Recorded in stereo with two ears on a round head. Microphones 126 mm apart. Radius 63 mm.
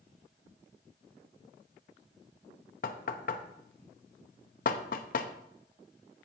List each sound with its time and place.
2.8 s knocking: 65° left (ahead or behind), 0.8 m